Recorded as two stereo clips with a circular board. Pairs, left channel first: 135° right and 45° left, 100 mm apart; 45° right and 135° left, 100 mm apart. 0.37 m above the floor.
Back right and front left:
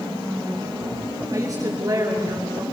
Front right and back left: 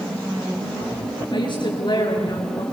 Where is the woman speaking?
10° right, 7.5 m.